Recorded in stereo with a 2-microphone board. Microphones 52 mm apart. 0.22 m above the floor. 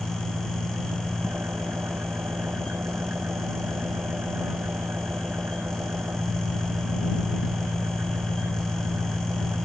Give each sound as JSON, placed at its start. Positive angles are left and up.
{"t": 0.0, "sound": "an engine running", "side_deg": -45}